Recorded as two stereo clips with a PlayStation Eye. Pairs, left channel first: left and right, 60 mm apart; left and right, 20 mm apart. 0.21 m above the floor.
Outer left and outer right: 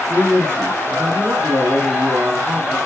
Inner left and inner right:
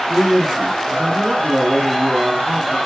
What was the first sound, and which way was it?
A man speaking, 40° right (ahead or behind).